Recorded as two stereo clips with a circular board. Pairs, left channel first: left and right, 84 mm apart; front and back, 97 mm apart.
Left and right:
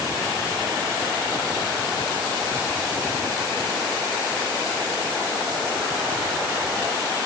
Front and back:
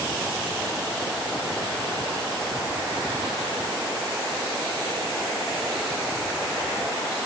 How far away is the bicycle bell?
I don't hear a bicycle bell.